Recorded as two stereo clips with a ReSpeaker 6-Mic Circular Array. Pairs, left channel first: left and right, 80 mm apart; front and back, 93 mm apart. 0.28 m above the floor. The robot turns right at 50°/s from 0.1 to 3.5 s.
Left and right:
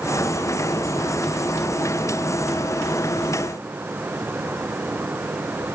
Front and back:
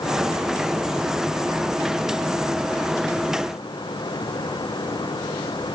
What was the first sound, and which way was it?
Only background noise.